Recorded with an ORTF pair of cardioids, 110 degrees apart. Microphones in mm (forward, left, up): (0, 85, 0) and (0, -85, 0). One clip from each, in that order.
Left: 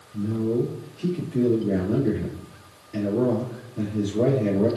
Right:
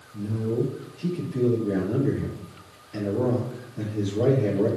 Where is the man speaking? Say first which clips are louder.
Left 3 dB; 25° left, 4 m.